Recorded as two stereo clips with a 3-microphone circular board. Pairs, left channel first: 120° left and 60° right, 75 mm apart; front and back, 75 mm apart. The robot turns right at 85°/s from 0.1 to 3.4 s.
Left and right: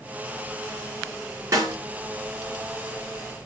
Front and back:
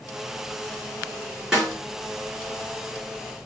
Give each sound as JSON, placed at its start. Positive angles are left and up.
{"t": 1.5, "sound": "a snare drum", "azimuth_deg": -100, "distance_m": 3.5}